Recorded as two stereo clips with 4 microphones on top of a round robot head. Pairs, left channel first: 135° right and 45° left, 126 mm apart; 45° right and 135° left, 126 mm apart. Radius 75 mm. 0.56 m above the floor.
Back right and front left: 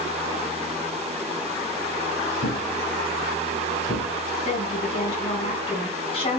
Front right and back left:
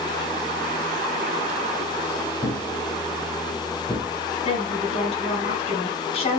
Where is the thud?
115° right, 4 m.